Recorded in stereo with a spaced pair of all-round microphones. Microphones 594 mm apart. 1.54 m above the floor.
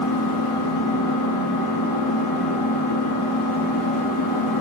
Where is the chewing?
No chewing in this recording.